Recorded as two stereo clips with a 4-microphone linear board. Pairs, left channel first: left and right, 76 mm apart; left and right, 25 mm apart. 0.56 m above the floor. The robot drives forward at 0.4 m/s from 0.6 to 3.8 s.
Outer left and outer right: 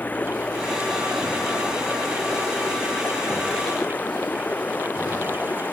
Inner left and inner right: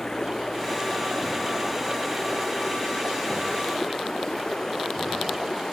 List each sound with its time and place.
0.0 s running water: 20° left (ahead or behind)